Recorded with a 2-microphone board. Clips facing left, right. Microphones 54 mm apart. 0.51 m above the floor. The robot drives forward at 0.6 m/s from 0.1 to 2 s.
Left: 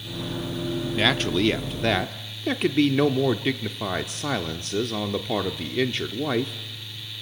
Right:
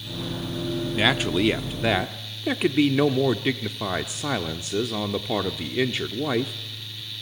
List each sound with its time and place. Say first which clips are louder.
1.0 s a man speaking: even; 5° right (ahead or behind), 0.6 m